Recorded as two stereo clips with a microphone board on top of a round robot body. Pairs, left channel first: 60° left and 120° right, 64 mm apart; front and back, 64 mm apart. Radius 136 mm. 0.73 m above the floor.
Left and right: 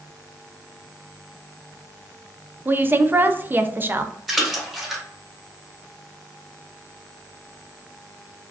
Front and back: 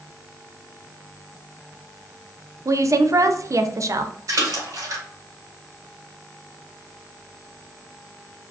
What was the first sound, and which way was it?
A woman speaking, 170° right.